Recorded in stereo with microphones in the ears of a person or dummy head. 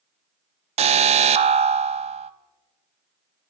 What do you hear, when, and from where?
0.8 s an alarm: 35° right (ahead or behind), 0.6 m